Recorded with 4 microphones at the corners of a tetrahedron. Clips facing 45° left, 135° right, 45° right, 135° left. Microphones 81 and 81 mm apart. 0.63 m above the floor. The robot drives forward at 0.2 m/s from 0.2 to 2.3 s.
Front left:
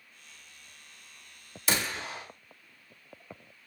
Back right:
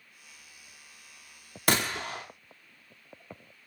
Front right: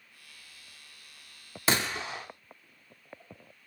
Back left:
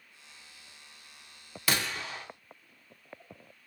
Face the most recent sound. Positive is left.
turn(degrees=-115)